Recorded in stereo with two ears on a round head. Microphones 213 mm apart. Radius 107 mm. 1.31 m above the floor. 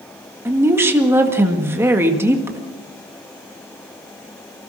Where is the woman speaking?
10° right (ahead or behind), 1.8 m.